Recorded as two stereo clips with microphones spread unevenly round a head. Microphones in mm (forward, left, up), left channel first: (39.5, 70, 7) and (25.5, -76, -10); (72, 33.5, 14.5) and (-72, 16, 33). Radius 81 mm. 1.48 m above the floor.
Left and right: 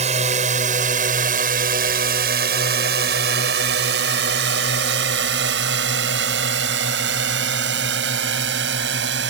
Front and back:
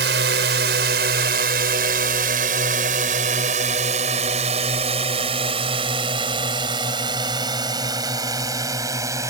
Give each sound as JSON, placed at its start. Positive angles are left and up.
{"t": 0.0, "sound": "a drone", "azimuth_deg": -150}